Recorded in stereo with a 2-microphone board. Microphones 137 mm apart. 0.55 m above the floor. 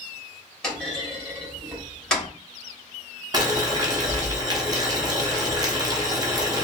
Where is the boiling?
30° right (ahead or behind), 0.6 m.